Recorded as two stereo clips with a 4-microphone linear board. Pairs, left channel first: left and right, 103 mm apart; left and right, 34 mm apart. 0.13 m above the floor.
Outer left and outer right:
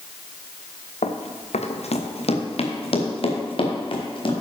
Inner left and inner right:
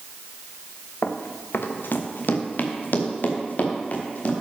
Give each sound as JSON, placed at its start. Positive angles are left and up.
{"t": 1.0, "sound": "running footsteps", "side_deg": 80, "distance_m": 1.4}